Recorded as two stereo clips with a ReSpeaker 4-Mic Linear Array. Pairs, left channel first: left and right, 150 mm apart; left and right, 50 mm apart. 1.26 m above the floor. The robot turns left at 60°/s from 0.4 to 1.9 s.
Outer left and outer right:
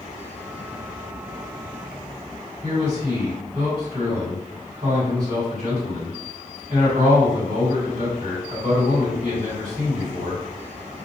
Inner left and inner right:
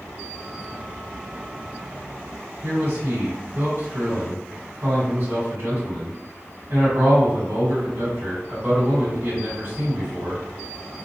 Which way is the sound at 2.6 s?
50° right (ahead or behind).